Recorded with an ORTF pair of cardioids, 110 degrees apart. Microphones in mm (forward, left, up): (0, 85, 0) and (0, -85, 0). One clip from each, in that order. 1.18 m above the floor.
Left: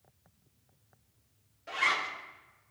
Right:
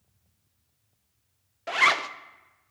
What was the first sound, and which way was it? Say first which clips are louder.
A zipper: right 7 dB; 55° right.